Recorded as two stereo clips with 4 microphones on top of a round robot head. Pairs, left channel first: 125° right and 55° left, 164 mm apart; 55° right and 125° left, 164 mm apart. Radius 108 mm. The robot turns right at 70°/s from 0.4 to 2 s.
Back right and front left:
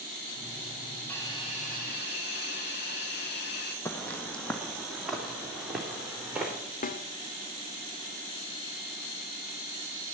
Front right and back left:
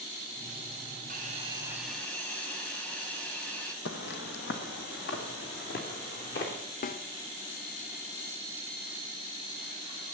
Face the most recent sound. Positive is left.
turn(degrees=-90)